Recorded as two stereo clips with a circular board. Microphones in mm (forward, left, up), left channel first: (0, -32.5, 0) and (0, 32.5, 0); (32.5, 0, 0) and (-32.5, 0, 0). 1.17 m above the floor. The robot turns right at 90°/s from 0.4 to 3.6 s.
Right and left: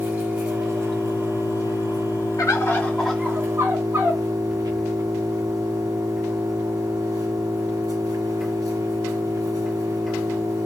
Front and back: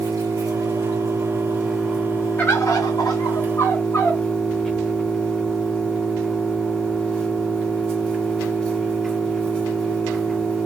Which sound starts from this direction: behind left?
An engine running, at 0.0 s.